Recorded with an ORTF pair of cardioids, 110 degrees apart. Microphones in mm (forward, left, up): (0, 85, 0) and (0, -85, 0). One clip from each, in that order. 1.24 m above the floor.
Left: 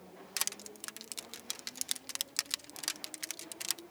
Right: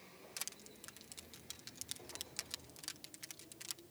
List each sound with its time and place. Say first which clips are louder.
0.4 s crushing: left 11 dB; 60° left